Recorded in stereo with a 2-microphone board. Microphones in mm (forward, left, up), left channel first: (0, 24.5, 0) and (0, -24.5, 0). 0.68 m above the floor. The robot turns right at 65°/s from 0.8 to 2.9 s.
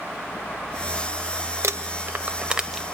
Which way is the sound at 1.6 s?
75° right (ahead or behind).